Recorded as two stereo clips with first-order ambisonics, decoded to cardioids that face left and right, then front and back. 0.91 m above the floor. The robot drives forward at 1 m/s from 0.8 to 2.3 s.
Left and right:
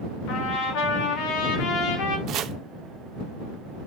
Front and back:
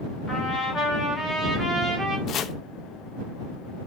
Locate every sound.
0.3 s a trumpet: 70° left, 2.5 m; by 2.2 s 105° left, 2.5 m
2.3 s chopping: 45° right, 0.7 m